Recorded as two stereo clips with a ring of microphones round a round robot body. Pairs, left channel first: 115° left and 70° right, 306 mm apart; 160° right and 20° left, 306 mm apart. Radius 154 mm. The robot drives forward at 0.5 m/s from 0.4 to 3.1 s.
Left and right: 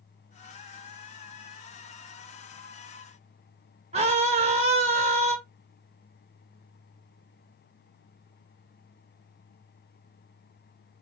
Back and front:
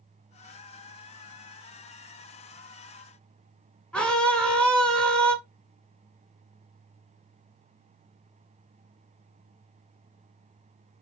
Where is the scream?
75° right, 1.1 m.